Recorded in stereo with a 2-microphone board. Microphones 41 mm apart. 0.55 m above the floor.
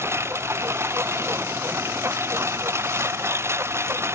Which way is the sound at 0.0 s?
90° right.